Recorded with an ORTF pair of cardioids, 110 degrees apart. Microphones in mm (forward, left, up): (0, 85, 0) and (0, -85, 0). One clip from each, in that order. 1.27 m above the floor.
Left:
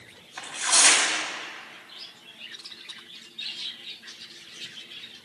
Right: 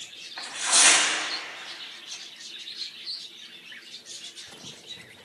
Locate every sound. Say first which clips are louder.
0.4 s tearing paper: even; 5° left, 3 m